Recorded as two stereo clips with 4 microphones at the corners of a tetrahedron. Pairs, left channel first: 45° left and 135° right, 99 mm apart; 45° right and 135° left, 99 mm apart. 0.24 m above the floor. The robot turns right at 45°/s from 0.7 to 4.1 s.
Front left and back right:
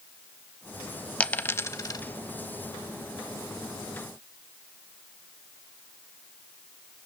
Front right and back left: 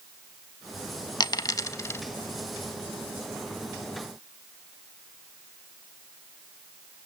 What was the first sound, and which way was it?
A dropped coin, 30° right.